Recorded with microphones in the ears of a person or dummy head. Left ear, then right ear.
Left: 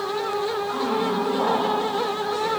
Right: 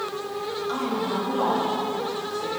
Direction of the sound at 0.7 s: 25° right (ahead or behind).